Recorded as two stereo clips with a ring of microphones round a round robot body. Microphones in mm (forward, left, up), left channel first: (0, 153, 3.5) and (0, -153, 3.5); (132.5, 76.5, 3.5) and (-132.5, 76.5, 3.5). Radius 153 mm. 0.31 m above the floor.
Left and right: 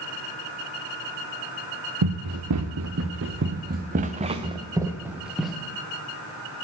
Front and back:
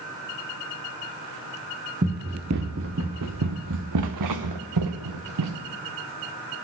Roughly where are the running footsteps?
Behind right.